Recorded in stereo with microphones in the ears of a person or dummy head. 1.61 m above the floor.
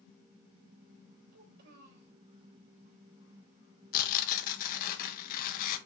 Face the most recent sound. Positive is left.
turn(degrees=45)  # may be behind; listen again after turning